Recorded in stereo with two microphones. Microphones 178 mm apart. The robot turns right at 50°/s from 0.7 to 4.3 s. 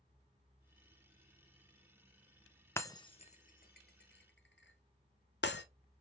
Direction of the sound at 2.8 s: 15° left (ahead or behind).